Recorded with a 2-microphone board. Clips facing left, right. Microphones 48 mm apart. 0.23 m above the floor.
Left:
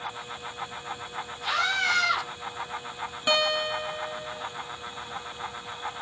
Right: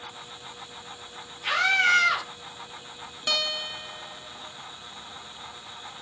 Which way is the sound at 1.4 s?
75° right (ahead or behind).